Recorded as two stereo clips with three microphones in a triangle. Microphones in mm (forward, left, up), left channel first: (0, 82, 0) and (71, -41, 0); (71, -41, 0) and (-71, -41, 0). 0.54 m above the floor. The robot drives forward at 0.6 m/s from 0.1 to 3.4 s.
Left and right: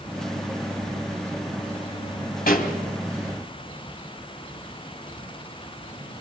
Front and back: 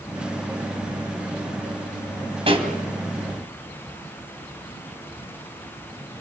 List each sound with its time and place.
2.5 s a pop: 130° left, 2.5 m; by 2.7 s 135° left, 2.5 m